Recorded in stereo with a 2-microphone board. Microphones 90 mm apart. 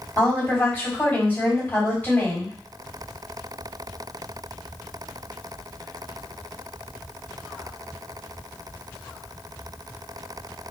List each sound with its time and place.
0.2 s a woman speaking: 20° left (ahead or behind), 1.9 m